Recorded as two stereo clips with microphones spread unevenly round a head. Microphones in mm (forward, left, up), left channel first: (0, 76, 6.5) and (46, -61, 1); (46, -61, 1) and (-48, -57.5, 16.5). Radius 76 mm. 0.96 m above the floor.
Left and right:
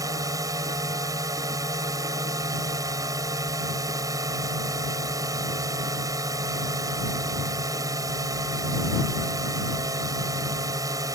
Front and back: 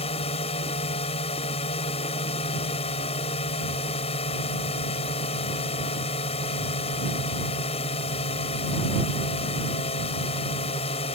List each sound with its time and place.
0.0 s a drone: 5° right